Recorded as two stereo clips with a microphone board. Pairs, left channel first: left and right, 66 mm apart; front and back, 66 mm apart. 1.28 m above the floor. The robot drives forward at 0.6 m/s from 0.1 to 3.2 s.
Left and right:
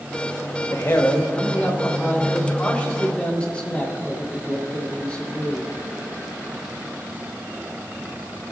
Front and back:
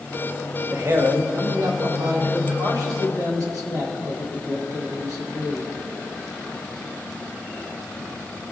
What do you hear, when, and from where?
0.7 s a man speaking: 135° left, 0.9 m; by 5.8 s 160° left, 2 m